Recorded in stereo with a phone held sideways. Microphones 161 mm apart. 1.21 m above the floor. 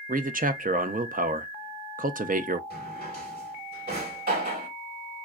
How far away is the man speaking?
About 0.5 m.